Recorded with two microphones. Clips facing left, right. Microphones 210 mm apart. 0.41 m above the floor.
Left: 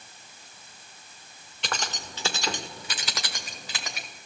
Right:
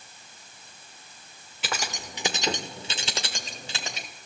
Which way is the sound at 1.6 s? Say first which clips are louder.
Right 1 dB; 5° right (ahead or behind).